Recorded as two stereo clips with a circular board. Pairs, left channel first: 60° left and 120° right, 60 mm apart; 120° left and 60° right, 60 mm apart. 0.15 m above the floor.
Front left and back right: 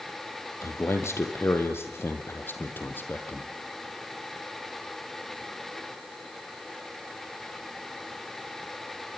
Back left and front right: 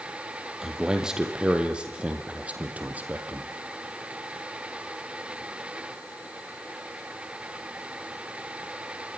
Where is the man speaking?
20° left, 4 m; by 3.5 s straight ahead, 4 m.